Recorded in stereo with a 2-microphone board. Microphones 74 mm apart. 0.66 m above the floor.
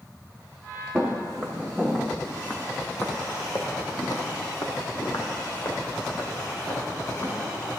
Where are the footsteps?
Centre (ahead or behind), 2 m; by 7.3 s 50° left (ahead or behind), 3 m.